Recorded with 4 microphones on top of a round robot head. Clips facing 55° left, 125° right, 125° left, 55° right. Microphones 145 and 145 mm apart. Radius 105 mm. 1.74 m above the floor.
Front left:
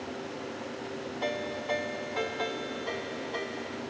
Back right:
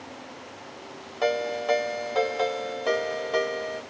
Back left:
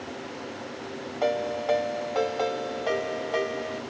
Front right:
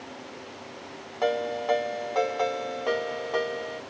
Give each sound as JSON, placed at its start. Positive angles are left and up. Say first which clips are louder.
{"t": 1.2, "sound": "a ringtone", "louder": "back right 10 dB, even", "azimuth_deg": -150, "distance_m": 2.5}